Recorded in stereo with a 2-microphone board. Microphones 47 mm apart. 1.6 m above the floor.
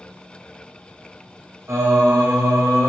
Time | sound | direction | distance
1.7 | singing | 85° right | 0.7 m